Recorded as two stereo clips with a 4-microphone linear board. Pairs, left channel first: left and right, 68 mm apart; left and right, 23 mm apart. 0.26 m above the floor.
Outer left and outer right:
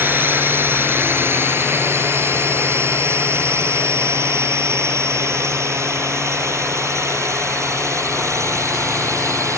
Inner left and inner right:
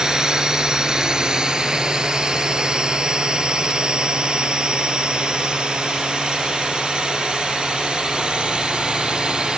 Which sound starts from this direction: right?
A drone, at 0.0 s.